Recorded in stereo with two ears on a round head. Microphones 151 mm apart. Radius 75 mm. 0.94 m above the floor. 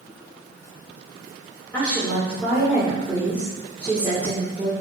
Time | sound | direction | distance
1.7 | a woman speaking | 10° left (ahead or behind) | 3 m